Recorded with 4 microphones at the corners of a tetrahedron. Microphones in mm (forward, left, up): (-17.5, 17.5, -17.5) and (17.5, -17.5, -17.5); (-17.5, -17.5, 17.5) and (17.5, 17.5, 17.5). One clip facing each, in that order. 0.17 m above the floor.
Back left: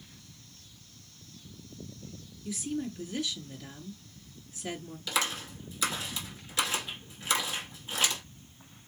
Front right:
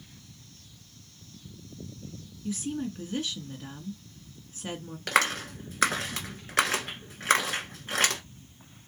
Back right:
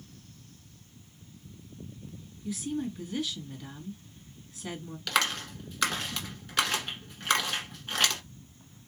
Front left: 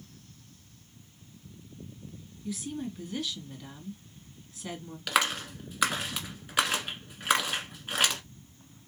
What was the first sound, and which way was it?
A woman speaking, 45° right.